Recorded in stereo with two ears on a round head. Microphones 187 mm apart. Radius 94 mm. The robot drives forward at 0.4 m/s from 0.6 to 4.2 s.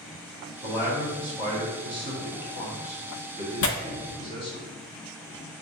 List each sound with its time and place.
0.6 s a man speaking: 20° left (ahead or behind), 1.4 m; by 4.6 s 25° left (ahead or behind), 1.1 m
3.6 s tearing paper: 80° left, 0.6 m; by 3.8 s 75° left (ahead or behind), 0.6 m